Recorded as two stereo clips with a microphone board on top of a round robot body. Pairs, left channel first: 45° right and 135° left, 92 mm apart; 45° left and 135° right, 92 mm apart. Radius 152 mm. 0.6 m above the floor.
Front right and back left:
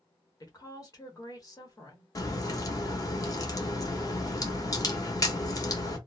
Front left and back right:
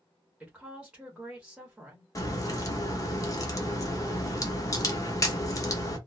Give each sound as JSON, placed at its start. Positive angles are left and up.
{"t": 0.4, "sound": "a woman speaking", "azimuth_deg": -60, "distance_m": 1.3}
{"t": 2.1, "sound": "a crack", "azimuth_deg": 0, "distance_m": 0.9}